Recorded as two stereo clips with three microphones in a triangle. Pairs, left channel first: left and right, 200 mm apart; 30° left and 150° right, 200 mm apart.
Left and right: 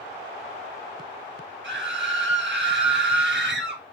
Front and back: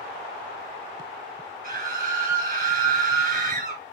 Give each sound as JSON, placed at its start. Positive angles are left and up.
{"t": 1.6, "sound": "a scream", "azimuth_deg": -110, "distance_m": 7.5}